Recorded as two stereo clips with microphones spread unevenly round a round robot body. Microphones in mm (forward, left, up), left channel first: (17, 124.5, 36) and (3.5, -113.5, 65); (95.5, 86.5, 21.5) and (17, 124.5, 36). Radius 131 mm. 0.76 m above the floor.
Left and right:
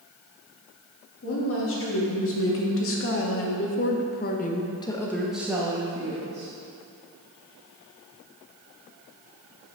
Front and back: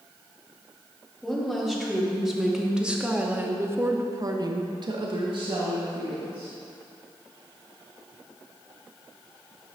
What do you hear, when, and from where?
1.2 s a woman speaking: 60° left, 2 m; by 6.5 s 160° right, 1.3 m